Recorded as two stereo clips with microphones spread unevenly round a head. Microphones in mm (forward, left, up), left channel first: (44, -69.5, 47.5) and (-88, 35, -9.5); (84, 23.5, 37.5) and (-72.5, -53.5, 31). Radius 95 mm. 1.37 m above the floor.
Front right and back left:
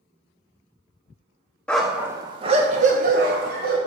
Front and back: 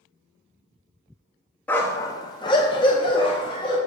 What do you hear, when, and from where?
1.7 s a dog barking: 40° right, 0.7 m; by 3.8 s 90° left, 1.5 m